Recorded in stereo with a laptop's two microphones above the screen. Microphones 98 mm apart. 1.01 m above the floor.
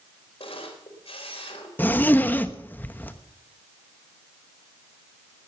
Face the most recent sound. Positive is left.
turn(degrees=20)  # may be behind; listen again after turning